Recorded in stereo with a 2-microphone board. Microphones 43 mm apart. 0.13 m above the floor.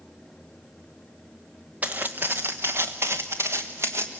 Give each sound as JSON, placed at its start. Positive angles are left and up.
{"t": 1.8, "sound": "footsteps", "side_deg": -35, "distance_m": 1.1}